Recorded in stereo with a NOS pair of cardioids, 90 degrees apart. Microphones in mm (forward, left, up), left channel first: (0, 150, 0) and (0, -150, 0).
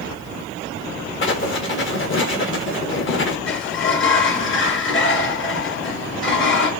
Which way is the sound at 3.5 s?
40° left.